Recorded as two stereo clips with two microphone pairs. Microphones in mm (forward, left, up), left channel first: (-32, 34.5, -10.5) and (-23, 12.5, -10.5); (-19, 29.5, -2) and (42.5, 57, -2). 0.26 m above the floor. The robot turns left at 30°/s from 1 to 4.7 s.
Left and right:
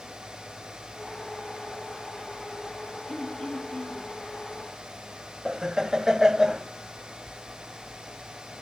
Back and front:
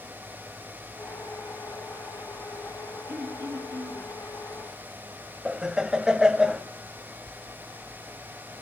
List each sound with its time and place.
3.1 s throat clearing: 95° left, 5.5 m; by 4.1 s 65° left, 5.5 m
5.5 s laughter: 35° right, 1.2 m